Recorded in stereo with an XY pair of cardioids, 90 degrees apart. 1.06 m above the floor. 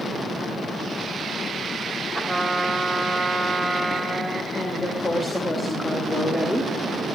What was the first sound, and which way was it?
A trumpet, 5° right.